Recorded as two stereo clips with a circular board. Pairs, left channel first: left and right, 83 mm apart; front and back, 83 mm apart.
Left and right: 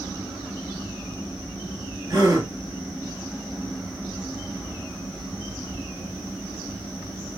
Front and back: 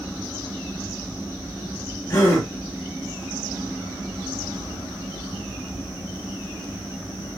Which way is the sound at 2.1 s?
50° right.